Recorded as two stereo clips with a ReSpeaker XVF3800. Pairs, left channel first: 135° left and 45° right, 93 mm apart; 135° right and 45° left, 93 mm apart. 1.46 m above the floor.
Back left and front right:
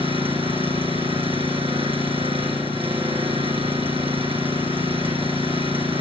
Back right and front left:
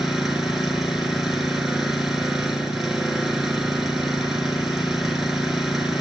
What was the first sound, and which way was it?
An engine running, 40° right.